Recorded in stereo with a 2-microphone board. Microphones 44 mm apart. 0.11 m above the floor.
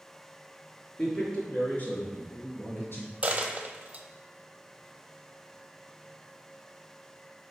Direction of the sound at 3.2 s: 30° right (ahead or behind).